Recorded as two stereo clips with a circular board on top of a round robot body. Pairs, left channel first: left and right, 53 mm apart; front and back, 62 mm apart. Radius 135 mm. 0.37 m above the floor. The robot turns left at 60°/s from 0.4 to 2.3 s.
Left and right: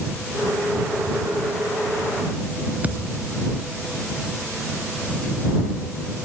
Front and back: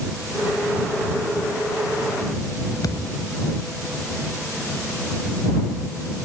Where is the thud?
25° right.